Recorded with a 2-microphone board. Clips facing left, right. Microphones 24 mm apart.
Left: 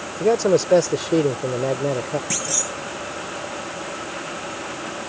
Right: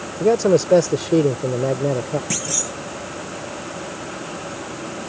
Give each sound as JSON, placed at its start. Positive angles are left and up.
{"t": 0.2, "sound": "a man speaking", "side_deg": 5}
{"t": 2.3, "sound": "a clunk", "side_deg": 0}